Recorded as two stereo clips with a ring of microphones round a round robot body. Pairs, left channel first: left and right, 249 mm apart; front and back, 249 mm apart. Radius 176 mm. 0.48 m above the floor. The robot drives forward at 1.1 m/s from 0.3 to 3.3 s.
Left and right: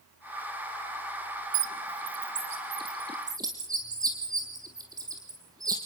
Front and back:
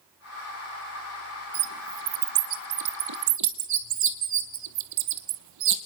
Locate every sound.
1.5 s a bird: 125° right, 0.6 m; by 5.8 s 170° right, 2.5 m